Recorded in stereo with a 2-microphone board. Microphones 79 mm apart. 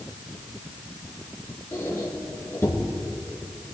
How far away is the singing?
I don't hear singing.